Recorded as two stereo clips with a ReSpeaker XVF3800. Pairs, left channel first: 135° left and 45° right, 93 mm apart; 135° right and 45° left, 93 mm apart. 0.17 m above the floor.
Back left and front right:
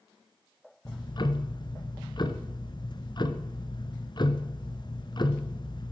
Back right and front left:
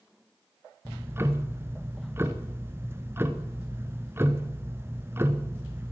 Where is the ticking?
105° left, 1.0 m.